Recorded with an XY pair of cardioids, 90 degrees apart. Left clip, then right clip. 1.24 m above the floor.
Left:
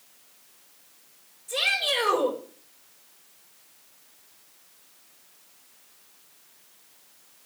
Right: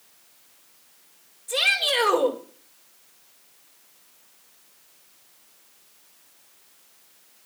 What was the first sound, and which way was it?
A shout, 50° right.